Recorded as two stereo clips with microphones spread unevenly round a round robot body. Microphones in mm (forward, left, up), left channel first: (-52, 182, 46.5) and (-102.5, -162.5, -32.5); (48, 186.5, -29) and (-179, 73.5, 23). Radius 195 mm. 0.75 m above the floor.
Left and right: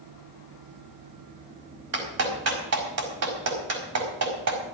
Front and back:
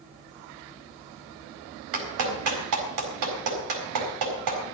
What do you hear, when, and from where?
1.9 s a clap: 145° right, 4.5 m